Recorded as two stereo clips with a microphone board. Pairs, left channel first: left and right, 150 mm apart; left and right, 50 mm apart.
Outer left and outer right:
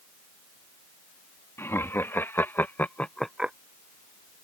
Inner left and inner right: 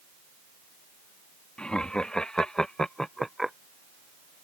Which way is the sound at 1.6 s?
15° left (ahead or behind).